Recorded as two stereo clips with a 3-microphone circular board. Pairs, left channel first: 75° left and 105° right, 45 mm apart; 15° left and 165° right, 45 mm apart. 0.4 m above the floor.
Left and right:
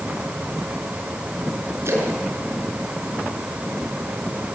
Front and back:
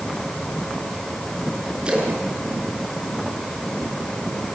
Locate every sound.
1.9 s a splash: 100° right, 5.5 m